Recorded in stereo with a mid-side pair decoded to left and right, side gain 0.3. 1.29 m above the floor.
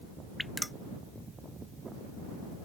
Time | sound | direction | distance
0.4 | dripping | 10° left | ?